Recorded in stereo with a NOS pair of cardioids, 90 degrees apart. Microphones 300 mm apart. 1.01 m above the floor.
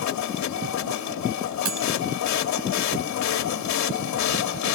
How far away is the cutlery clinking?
About 4 m.